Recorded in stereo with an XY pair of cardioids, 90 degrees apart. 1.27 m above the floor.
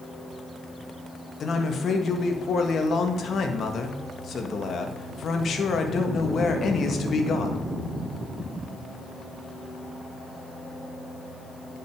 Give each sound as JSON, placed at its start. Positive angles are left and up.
{"t": 1.4, "sound": "a man speaking", "azimuth_deg": 55, "distance_m": 1.9}